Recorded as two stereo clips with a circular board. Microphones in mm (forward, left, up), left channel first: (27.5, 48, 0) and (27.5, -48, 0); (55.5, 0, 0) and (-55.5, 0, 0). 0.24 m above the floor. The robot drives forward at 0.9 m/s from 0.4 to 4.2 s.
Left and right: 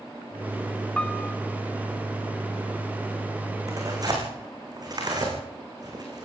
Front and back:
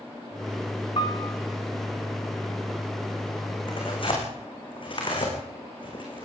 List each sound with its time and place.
1.0 s a piano: 15° left, 1.3 m; by 1.4 s 25° left, 1.1 m
3.7 s tearing paper: 40° right, 6 m